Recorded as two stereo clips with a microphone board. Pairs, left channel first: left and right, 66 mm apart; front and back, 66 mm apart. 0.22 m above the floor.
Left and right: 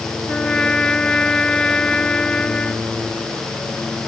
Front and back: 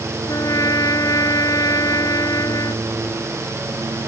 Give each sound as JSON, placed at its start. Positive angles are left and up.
{"t": 0.3, "sound": "a trumpet", "azimuth_deg": 15}